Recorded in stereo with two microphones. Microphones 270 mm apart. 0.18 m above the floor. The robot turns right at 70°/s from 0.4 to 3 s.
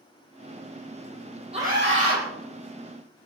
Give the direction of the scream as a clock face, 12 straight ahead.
5 o'clock.